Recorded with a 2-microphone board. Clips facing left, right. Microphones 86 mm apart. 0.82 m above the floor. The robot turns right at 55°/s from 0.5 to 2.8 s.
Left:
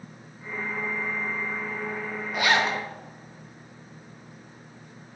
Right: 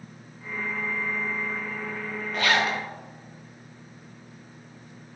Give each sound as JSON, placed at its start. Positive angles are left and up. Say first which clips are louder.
{"t": 2.3, "sound": "a zipper", "louder": "left 1 dB", "side_deg": 10, "distance_m": 0.6}